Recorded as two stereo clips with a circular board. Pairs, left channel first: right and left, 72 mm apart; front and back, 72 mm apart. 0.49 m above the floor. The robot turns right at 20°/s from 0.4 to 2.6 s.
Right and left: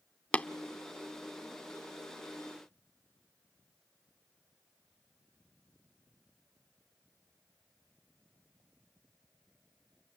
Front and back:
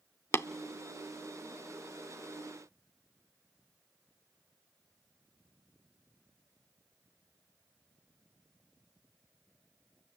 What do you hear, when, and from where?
0.3 s tapping: 30° right, 0.6 m; by 0.5 s 25° right, 0.6 m